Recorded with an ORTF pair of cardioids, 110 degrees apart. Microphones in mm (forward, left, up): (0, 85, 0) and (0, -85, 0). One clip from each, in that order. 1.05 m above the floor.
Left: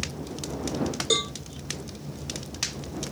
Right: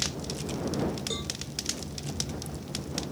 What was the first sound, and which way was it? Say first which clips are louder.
A cowbell: left 9 dB; 60° left.